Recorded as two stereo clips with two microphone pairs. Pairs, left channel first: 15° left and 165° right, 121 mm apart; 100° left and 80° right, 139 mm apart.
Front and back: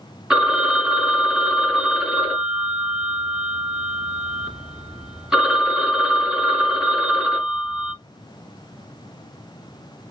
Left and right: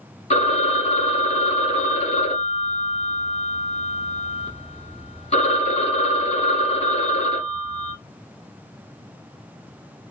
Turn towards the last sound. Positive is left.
turn(degrees=110)